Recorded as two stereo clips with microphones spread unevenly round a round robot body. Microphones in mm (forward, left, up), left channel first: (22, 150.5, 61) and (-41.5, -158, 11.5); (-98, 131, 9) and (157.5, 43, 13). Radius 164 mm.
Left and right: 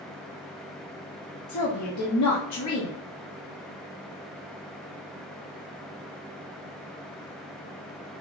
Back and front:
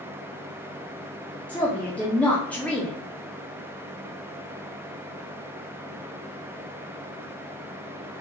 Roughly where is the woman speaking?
Left.